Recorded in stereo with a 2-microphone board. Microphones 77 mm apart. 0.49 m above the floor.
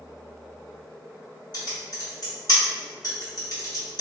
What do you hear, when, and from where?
1.5 s typing on a keyboard: 60° left (ahead or behind), 1.3 m